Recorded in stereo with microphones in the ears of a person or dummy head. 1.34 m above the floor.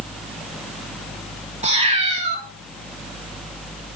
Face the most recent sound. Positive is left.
turn(degrees=-35)  # may be behind; listen again after turning